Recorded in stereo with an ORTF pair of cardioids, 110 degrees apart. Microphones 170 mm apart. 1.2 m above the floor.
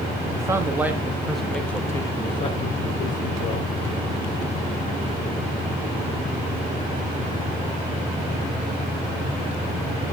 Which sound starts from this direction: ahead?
A man speaking, at 0.3 s.